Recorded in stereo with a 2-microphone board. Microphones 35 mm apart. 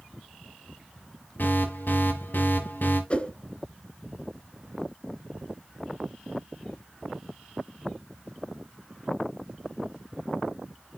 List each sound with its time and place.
1.4 s an alarm: 65° left (ahead or behind), 5.5 m
3.1 s a whoosh: 40° left (ahead or behind), 1.1 m